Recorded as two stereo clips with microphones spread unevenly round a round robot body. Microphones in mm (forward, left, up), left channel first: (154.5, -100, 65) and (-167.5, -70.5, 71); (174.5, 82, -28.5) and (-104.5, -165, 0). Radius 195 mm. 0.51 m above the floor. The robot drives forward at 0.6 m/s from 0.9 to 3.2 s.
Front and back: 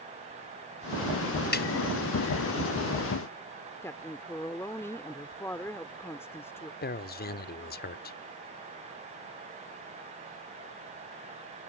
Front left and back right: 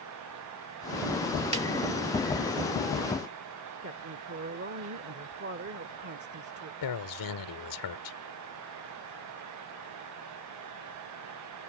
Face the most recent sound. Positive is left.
turn(degrees=50)